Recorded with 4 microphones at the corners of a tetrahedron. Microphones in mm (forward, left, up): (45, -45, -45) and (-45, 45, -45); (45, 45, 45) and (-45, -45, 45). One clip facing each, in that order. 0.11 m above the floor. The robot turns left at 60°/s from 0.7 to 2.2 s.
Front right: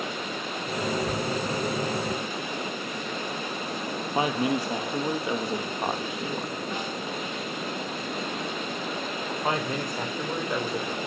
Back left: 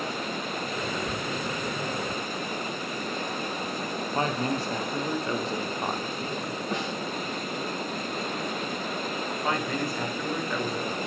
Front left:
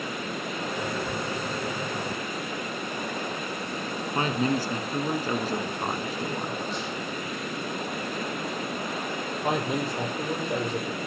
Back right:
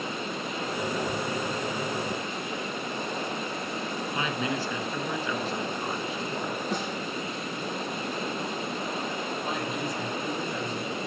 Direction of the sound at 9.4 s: 25° left.